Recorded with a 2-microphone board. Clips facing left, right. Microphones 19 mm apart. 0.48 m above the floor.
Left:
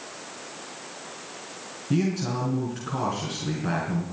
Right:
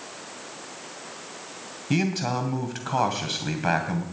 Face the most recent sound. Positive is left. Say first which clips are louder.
# right 1 dB
turn(degrees=-75)  # may be behind; listen again after turning